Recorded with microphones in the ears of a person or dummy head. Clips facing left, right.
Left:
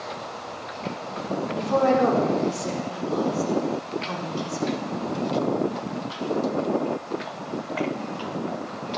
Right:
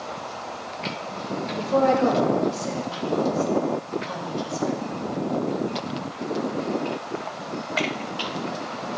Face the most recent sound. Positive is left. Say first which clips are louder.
# even
turn(degrees=85)